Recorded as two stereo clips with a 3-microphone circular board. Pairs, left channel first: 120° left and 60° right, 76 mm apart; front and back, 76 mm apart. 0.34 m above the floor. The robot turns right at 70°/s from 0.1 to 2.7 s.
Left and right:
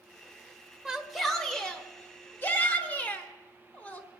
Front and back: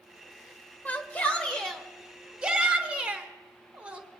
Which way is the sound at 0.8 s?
5° left.